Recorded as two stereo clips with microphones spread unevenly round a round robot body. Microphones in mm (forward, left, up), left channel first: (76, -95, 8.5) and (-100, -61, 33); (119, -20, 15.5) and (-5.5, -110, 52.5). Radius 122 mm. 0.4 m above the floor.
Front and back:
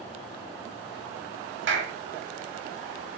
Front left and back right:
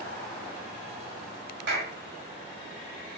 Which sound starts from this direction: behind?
A clap, at 1.7 s.